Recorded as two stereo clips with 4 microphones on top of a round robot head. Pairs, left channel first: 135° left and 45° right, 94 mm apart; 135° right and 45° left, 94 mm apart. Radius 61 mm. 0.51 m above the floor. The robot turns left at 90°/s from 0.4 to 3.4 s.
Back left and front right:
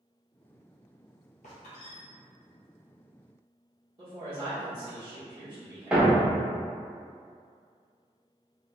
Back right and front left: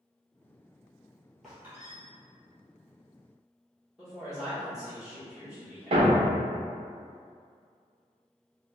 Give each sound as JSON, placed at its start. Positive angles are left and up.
{"t": 1.4, "sound": "a squeak", "azimuth_deg": 140, "distance_m": 1.1}
{"t": 4.0, "sound": "a woman speaking", "azimuth_deg": -40, "distance_m": 1.2}
{"t": 5.9, "sound": "a thud", "azimuth_deg": 30, "distance_m": 0.7}